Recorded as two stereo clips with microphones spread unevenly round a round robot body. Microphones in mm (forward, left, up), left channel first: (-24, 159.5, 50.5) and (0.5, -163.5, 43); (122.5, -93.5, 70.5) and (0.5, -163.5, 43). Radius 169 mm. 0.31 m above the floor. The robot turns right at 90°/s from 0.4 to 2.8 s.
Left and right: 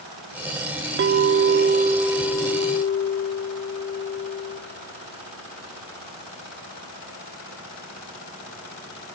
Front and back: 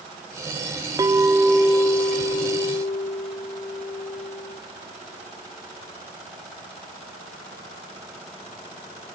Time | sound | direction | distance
1.0 | a clink | 115° right | 0.7 m